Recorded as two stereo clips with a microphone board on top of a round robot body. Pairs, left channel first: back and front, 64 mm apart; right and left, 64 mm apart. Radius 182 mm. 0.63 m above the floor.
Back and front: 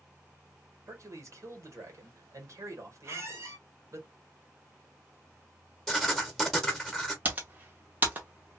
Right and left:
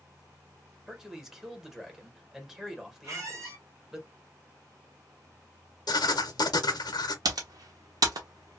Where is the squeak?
50° left, 1.1 m.